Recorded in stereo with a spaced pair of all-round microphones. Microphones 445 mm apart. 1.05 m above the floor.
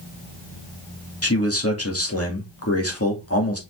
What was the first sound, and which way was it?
A man speaking, 30° left (ahead or behind).